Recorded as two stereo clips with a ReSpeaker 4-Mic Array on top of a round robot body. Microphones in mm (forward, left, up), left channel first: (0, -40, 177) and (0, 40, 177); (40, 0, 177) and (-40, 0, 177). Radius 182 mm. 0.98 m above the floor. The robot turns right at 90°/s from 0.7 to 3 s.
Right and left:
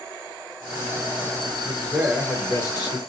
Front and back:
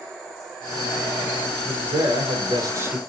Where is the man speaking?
130° left, 0.8 m; by 3.0 s 110° right, 0.8 m.